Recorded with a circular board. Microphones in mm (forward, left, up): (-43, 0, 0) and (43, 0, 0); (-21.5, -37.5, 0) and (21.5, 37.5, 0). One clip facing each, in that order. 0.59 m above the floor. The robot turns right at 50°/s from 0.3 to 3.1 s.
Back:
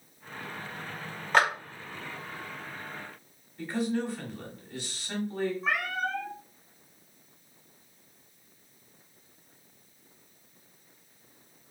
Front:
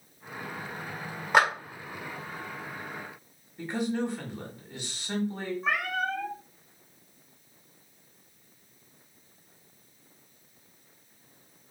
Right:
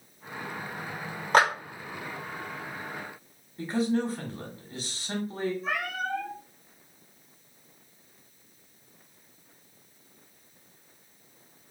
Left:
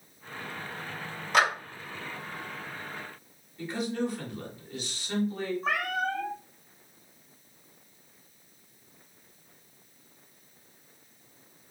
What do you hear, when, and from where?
1.3 s a clap: 80° right, 1.5 m; by 1.5 s 70° right, 1.5 m
3.6 s a man speaking: 70° right, 1.2 m
5.6 s a cat meowing: 85° left, 1.4 m